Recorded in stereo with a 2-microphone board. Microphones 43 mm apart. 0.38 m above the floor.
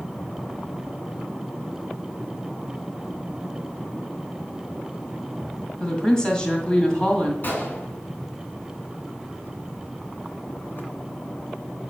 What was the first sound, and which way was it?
A woman speaking, 20° left (ahead or behind).